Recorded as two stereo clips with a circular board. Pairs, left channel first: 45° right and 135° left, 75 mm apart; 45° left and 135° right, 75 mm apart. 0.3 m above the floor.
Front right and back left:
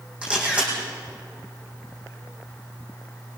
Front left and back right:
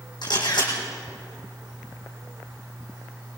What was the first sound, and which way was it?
A camera shutter, 60° left.